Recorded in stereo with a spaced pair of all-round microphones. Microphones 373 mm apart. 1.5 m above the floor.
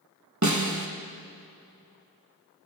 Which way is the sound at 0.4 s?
50° right (ahead or behind).